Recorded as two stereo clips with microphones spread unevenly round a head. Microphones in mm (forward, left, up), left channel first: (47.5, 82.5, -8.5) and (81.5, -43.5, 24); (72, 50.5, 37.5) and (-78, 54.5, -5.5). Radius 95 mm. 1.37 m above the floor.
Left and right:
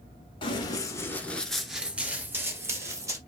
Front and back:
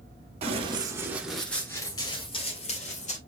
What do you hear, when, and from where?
0.4 s running footsteps: 150° left, 1.4 m; by 3.2 s 20° right, 2.5 m